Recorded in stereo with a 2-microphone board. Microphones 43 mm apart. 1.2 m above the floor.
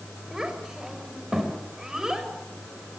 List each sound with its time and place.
0.3 s a child speaking: 15° right (ahead or behind), 4.5 m